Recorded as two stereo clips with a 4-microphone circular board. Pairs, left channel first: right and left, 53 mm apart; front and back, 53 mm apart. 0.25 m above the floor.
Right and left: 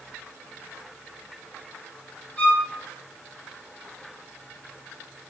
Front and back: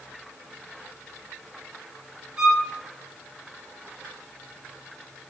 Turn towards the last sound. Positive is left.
turn(degrees=-120)